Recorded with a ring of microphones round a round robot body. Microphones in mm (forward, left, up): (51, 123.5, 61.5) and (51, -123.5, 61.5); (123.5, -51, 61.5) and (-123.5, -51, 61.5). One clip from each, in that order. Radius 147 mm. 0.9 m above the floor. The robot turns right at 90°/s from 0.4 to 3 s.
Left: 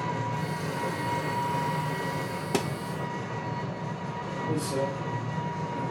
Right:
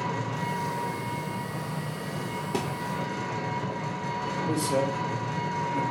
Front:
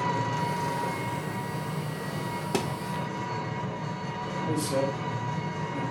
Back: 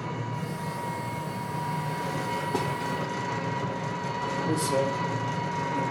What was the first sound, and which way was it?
An engine running, 10° right.